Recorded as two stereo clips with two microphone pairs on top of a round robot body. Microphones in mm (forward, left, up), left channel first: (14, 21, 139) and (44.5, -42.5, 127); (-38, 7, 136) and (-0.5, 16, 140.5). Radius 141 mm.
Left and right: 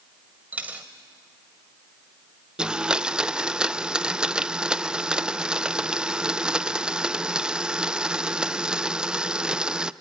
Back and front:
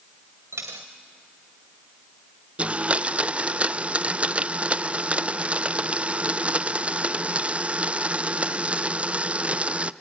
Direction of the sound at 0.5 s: 10° left.